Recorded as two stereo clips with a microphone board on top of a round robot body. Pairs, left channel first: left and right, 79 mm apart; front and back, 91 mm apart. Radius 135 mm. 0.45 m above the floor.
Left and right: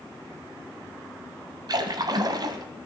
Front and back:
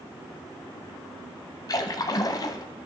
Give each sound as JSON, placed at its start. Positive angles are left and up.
{"t": 1.7, "sound": "a splash", "azimuth_deg": -50, "distance_m": 1.0}